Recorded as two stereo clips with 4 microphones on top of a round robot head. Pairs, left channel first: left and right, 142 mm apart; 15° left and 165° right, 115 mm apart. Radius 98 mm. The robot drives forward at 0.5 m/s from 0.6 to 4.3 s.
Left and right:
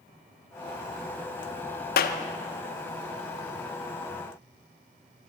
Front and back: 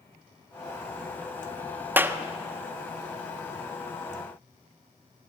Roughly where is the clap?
Behind left.